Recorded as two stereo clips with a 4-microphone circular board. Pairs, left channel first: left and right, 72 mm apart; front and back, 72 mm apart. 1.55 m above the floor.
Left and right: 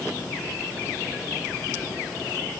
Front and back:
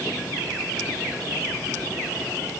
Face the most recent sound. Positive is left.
No sound to turn to.